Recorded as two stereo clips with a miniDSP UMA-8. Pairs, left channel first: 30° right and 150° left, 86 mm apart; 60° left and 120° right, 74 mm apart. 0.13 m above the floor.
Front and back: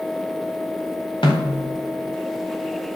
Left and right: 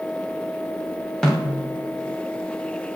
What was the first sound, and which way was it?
A snare drum, 25° right.